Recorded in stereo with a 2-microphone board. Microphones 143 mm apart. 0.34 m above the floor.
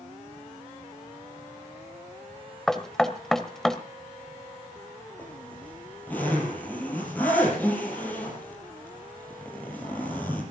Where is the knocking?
5° left (ahead or behind), 1.2 m.